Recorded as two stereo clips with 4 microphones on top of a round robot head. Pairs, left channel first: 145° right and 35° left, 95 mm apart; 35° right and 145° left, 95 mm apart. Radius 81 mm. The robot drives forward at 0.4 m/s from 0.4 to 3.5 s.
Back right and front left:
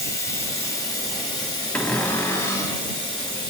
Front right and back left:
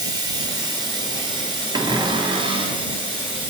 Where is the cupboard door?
140° left, 0.6 m; by 2.9 s 160° left, 0.9 m.